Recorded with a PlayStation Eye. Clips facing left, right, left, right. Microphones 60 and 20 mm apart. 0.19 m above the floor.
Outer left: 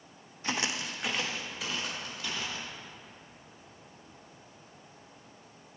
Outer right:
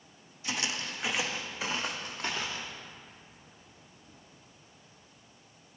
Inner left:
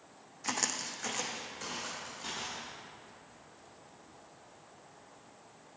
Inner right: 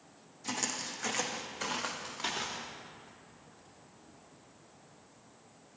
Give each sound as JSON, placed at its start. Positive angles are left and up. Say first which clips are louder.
{"t": 0.4, "sound": "footsteps", "louder": "outer left 2 dB, inner left 1 dB", "side_deg": 40, "distance_m": 0.6}